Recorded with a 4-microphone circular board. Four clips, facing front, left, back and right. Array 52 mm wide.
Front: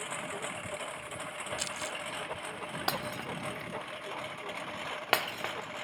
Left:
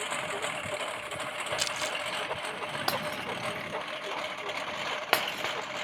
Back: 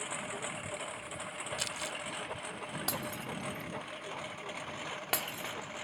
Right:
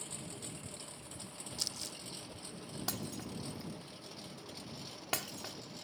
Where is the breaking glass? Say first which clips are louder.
Left 10 dB, front 6 dB; 55° left.